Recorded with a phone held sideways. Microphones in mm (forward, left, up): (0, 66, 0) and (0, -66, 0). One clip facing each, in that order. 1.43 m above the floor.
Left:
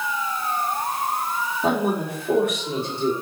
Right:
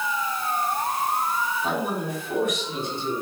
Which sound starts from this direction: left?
A man speaking, at 1.6 s.